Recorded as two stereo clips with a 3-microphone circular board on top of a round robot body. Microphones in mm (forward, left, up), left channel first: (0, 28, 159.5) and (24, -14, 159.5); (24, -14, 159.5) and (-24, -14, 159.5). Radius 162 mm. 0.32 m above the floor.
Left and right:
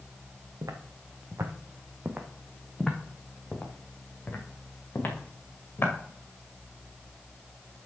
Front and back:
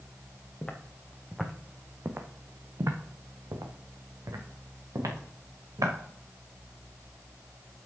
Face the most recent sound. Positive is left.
turn(degrees=170)